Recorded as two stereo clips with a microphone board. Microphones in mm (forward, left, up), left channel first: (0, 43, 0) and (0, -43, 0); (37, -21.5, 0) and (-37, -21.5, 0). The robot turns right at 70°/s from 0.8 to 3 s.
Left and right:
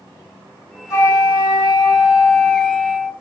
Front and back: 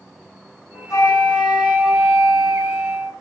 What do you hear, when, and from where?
0.9 s a flute: 35° left, 2 m; by 3.1 s straight behind, 2 m